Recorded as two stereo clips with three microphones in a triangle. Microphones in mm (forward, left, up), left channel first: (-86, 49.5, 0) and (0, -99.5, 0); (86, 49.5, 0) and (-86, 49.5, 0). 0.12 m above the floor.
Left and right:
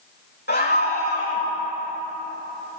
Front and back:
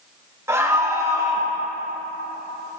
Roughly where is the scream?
Left.